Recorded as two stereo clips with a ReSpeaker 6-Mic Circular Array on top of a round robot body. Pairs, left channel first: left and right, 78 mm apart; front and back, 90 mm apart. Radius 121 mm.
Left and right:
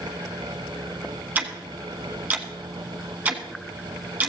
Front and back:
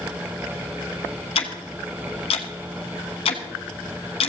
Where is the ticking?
20° right, 1.0 m.